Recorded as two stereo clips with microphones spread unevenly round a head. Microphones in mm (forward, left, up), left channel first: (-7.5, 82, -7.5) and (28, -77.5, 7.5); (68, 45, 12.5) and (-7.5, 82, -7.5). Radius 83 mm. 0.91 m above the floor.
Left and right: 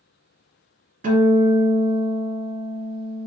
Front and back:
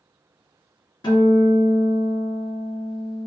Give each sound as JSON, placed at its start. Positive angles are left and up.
{"t": 1.0, "sound": "a guitar", "azimuth_deg": -45, "distance_m": 1.7}